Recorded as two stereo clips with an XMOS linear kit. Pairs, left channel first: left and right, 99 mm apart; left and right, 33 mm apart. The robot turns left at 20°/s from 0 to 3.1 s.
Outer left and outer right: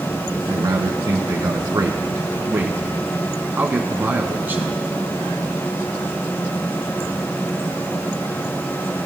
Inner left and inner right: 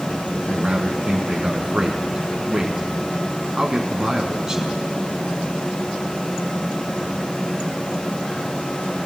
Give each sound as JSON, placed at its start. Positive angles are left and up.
{"t": 0.5, "sound": "a man speaking", "azimuth_deg": -95, "distance_m": 1.3}